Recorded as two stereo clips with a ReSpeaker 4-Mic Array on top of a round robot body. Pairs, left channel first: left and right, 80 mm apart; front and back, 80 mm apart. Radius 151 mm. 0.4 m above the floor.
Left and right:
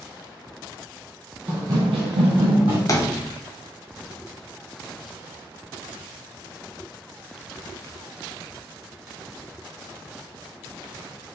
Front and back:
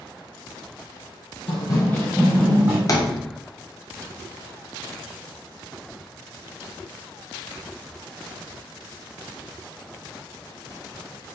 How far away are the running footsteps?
About 0.9 m.